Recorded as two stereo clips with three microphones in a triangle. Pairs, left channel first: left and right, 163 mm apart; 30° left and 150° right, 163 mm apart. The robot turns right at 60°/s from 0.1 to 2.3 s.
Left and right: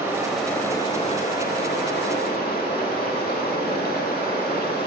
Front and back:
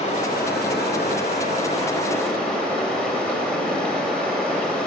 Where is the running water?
20° right, 0.9 m; by 4.9 s 115° left, 0.9 m.